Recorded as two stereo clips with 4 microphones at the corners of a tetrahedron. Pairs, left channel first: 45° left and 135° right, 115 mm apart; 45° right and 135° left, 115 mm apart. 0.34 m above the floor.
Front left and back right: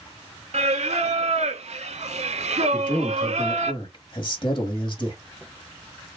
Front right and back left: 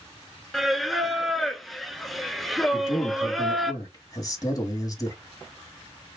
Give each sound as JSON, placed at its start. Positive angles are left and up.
{"t": 0.5, "sound": "singing", "azimuth_deg": -135, "distance_m": 0.6}
{"t": 2.7, "sound": "a man speaking", "azimuth_deg": 5, "distance_m": 1.8}